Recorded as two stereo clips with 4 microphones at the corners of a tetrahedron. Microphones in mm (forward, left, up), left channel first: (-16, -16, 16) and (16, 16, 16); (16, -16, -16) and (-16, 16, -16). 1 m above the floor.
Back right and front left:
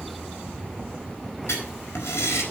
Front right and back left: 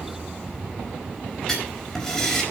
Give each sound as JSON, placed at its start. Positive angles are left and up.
{"t": 1.5, "sound": "writing", "azimuth_deg": -125, "distance_m": 4.5}